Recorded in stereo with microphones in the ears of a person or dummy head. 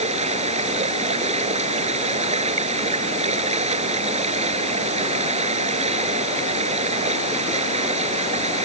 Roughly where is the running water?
Right.